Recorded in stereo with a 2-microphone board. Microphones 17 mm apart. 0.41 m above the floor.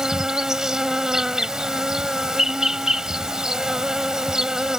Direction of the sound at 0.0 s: 45° right (ahead or behind).